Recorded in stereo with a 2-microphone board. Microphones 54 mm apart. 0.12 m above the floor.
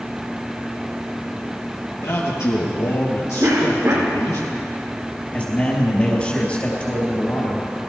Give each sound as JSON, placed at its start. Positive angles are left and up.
{"t": 2.0, "sound": "a man speaking", "side_deg": 60, "distance_m": 3.0}
{"t": 3.4, "sound": "a cough", "side_deg": -55, "distance_m": 5.0}
{"t": 5.3, "sound": "a man speaking", "side_deg": 25, "distance_m": 3.0}